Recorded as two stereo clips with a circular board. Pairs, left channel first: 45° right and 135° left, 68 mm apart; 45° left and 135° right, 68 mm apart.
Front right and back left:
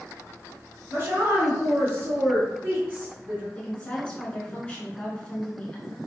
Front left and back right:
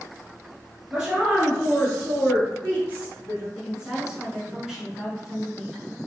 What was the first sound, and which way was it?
A woman speaking, 150° left.